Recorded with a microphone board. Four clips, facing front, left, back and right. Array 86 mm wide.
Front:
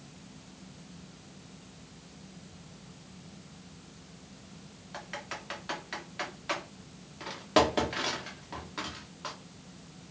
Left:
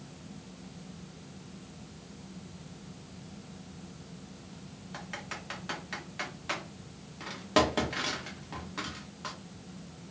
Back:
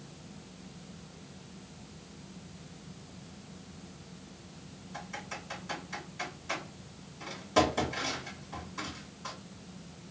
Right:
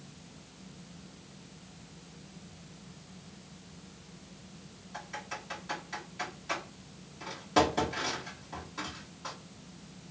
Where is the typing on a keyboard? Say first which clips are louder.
Right 1 dB, front 1 dB; 45° left, 1.1 m.